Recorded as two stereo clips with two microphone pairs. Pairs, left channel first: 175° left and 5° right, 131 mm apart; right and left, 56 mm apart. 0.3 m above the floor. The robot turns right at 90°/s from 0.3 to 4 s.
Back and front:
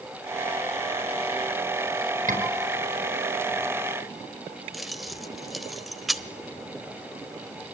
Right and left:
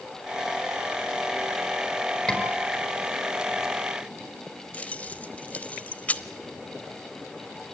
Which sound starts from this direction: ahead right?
A scream, at 2.3 s.